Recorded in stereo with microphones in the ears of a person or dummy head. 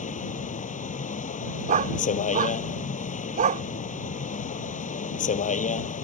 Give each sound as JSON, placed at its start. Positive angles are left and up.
{"t": 0.0, "sound": "a vehicle", "side_deg": 40}
{"t": 1.7, "sound": "a dog barking", "side_deg": -35}